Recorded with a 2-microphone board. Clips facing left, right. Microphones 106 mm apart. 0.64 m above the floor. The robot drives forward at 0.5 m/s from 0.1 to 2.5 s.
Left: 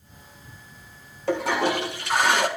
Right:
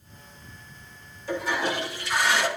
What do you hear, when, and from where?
1.3 s a toilet flushing: 70° left (ahead or behind), 1.4 m; by 2.5 s 55° left (ahead or behind), 1.6 m